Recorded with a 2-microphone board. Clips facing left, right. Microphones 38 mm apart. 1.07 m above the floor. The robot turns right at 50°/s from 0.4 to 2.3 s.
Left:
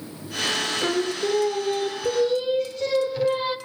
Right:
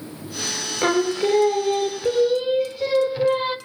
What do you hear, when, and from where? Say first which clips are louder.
0.8 s singing: right 8 dB; 95° right, 0.9 m; by 3.6 s 20° right, 0.9 m